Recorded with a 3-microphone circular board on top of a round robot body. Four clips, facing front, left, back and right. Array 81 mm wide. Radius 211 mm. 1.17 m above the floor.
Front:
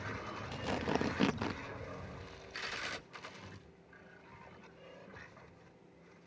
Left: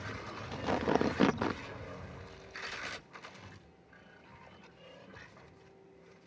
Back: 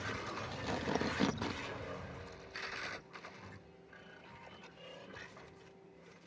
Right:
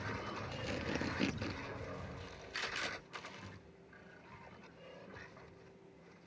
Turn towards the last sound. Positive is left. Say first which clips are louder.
# left 12 dB, front 2 dB
turn(degrees=85)